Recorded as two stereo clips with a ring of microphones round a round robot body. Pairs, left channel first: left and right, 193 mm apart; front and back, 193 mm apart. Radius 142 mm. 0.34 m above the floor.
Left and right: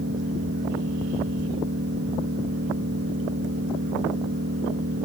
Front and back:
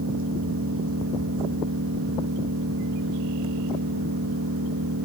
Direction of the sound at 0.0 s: 140° right.